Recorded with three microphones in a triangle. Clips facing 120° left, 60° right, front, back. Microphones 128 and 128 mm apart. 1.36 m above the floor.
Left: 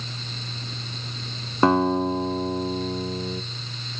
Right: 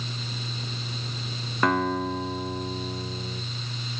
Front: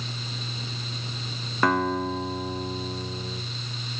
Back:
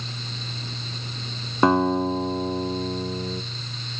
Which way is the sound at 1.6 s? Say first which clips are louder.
Left 5 dB, back 5 dB; 145° left.